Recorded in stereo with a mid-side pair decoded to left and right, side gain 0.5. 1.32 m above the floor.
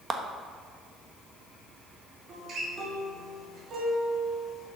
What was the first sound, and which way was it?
A clap, 35° right.